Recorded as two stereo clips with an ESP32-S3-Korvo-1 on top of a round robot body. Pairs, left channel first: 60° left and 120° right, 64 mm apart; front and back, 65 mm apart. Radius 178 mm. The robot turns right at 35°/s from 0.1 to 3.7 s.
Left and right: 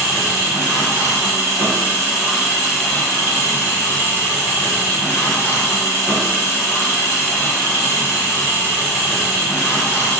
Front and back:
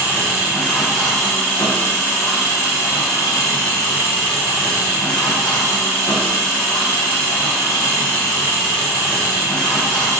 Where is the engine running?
120° right, 0.8 m; by 10.2 s 10° left, 0.8 m.